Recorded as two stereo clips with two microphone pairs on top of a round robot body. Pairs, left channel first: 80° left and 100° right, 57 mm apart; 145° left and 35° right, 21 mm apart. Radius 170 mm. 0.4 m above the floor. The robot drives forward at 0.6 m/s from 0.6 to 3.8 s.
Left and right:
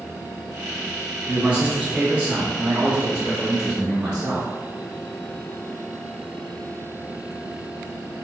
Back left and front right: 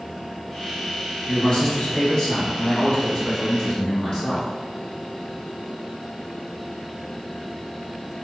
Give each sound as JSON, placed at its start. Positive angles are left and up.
{"t": 1.3, "sound": "a man speaking", "azimuth_deg": -170, "distance_m": 1.4}